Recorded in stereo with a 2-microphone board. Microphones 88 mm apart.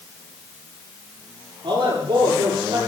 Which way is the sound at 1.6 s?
70° right (ahead or behind).